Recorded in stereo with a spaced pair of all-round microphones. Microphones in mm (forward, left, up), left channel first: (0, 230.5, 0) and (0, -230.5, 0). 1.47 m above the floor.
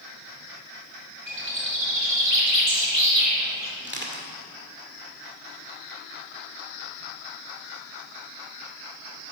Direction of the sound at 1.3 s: 70° right (ahead or behind).